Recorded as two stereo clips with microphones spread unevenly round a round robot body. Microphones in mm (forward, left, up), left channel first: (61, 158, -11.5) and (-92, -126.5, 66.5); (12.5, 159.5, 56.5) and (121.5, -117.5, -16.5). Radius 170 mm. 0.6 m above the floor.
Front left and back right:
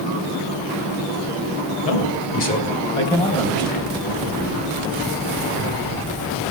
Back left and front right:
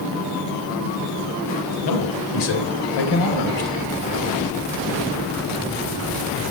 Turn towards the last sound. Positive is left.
turn(degrees=150)